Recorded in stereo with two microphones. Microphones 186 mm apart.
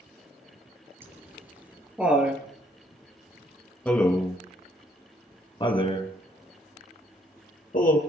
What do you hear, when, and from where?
1.0 s laughter: 15° right (ahead or behind), 5.5 m; by 8.0 s 55° left (ahead or behind), 4 m